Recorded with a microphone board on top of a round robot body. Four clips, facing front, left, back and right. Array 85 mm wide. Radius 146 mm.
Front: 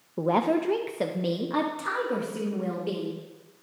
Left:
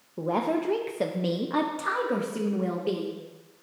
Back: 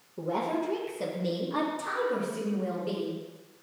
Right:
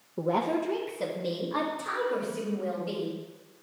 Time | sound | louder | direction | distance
0.2 | a woman speaking | left 1 dB, front 6 dB | 10° right | 0.7 m